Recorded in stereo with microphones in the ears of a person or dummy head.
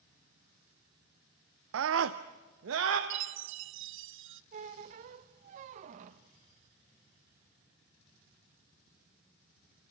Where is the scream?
70° right (ahead or behind), 0.5 m; by 3.0 s 75° right (ahead or behind), 1.2 m.